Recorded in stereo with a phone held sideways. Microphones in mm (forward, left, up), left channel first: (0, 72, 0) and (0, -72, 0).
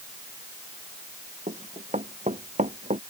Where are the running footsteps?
50° right (ahead or behind); by 3.0 s 55° right (ahead or behind).